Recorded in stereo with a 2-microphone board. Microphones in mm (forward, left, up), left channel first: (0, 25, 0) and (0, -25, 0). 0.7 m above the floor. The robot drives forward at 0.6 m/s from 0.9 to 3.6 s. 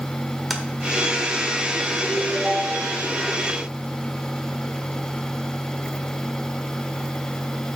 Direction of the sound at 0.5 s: 5° right (ahead or behind).